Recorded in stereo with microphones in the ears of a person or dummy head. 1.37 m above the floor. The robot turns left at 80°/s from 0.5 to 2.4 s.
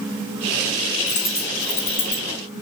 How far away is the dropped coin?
About 0.7 m.